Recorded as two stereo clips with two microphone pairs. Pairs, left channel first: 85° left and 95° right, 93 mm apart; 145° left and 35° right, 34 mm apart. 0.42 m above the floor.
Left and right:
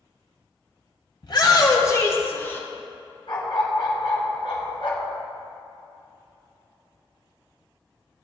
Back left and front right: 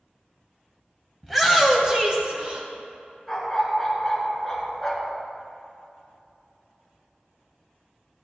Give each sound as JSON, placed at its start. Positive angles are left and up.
{"t": 1.2, "sound": "a shout", "azimuth_deg": 55, "distance_m": 2.5}
{"t": 3.3, "sound": "a dog barking", "azimuth_deg": 55, "distance_m": 2.5}